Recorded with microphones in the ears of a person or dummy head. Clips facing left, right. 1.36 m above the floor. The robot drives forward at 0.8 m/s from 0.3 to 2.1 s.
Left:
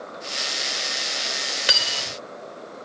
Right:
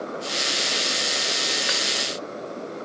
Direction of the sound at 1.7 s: 50° left (ahead or behind).